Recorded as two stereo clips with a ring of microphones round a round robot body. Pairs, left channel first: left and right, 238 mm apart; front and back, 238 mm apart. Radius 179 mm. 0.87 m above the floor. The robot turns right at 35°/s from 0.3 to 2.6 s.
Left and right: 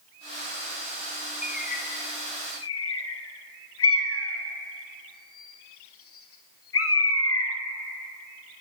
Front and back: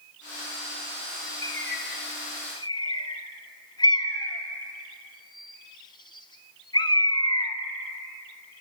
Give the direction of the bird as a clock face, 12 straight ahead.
11 o'clock.